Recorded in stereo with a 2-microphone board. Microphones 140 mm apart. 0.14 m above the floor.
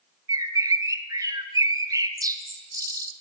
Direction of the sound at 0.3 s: 25° right (ahead or behind).